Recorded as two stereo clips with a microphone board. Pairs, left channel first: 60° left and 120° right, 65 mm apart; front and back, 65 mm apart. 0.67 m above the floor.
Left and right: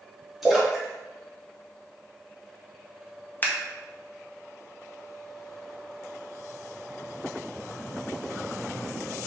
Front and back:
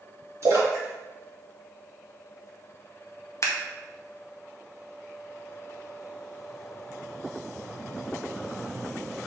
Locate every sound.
0.4 s a splash: 155° left, 1.0 m
3.4 s scissors: 10° left, 0.5 m